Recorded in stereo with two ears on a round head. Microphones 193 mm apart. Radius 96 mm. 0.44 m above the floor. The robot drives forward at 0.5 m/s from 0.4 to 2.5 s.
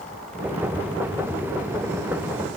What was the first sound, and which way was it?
Only background noise.